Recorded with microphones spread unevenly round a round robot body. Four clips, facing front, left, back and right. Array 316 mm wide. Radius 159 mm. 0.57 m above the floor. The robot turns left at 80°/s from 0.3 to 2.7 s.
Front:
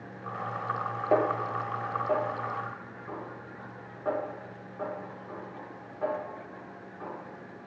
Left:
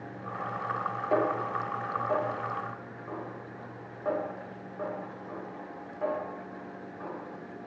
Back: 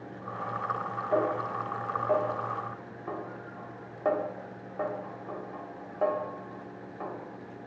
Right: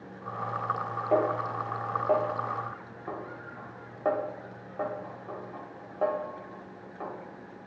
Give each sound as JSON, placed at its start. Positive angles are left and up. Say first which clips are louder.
{"t": 1.1, "sound": "a snare drum", "louder": "right 2 dB, front 2 dB", "azimuth_deg": -10, "distance_m": 3.0}